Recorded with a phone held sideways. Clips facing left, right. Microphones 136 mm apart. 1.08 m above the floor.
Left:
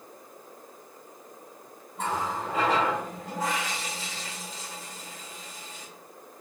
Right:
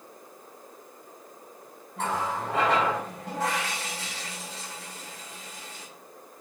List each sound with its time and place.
2.0 s a running tap: 90° right, 4 m